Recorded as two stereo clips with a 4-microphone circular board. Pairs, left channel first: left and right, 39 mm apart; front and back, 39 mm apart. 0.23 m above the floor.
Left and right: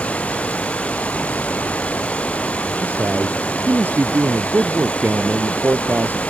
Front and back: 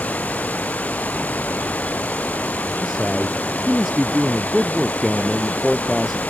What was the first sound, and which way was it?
Running water, 40° left.